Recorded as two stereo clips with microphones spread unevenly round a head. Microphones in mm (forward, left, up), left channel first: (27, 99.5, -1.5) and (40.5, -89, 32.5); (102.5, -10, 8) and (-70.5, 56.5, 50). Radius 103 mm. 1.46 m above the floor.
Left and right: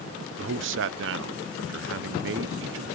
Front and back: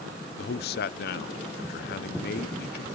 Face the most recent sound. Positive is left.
turn(degrees=-65)